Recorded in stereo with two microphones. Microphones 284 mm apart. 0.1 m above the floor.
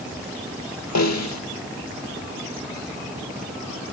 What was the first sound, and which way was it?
A snare drum, 70° left (ahead or behind).